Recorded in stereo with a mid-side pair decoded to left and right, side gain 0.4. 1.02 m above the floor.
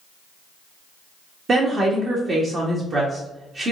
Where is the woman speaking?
45° right, 1.2 m.